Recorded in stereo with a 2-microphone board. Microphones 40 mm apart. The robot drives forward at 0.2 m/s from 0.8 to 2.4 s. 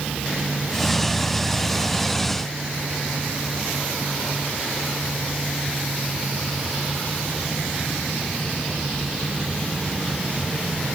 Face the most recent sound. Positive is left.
No sound to turn to.